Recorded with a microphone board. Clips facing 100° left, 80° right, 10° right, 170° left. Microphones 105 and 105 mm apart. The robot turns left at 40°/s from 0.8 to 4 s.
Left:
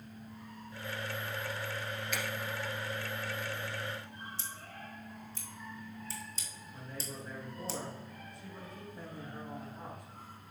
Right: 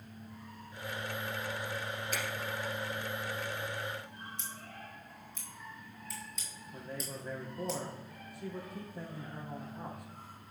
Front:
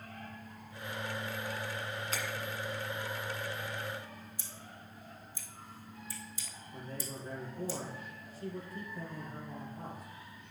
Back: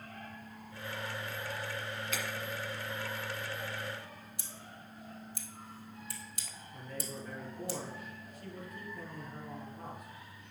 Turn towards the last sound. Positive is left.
turn(degrees=-65)